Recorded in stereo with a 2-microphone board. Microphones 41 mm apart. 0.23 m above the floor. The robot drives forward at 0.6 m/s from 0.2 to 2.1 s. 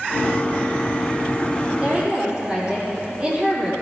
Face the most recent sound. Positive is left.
turn(degrees=-25)  # may be behind; listen again after turning